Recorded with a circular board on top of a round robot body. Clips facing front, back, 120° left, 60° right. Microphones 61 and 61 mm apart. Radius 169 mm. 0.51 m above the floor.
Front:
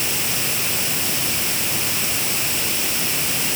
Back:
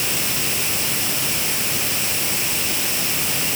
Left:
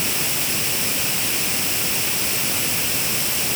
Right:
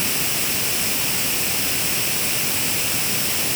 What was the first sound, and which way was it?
Only background noise.